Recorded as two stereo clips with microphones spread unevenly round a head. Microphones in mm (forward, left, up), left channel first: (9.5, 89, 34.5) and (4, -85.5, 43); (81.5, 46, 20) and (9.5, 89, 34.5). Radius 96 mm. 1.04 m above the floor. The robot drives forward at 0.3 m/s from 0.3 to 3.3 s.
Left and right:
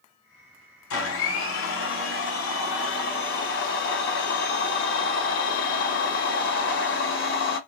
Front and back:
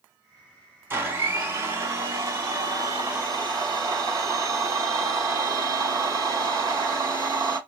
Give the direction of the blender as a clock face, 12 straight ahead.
9 o'clock.